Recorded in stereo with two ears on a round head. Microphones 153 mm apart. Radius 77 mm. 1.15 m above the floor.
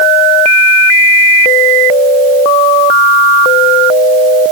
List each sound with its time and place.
Only background noise.